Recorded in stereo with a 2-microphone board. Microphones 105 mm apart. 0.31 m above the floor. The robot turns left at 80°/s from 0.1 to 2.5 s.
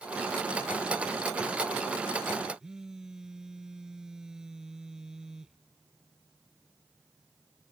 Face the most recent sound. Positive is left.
turn(degrees=-5)  # may be behind; listen again after turning